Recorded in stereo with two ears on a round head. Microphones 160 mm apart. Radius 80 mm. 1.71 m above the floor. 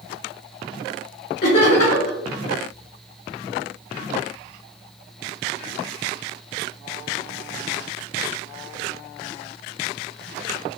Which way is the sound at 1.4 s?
60° left (ahead or behind).